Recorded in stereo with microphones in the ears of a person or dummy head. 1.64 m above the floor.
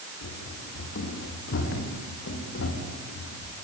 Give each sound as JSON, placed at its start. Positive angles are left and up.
{"t": 0.2, "sound": "running footsteps", "side_deg": 60, "distance_m": 3.0}